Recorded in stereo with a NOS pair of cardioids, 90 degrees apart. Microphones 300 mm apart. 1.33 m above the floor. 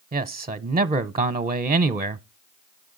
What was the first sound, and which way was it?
A man speaking, 20° right.